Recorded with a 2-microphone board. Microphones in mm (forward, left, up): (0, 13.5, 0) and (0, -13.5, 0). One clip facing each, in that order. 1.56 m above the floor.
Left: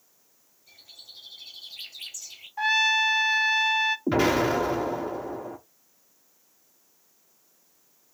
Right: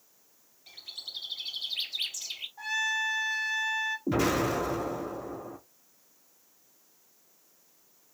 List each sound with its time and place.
0.7 s a bird: 85° right, 3 m
2.6 s a trumpet: 55° left (ahead or behind), 0.6 m
4.1 s an explosion: 40° left (ahead or behind), 1.5 m